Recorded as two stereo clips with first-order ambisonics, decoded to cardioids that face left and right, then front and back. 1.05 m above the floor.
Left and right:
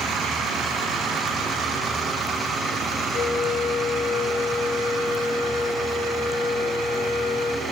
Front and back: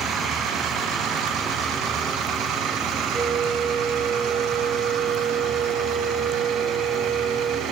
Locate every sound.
3.1 s a flute: 105° left, 0.8 m